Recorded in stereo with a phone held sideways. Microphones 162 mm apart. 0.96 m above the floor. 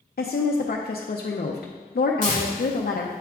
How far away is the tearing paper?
About 1.8 m.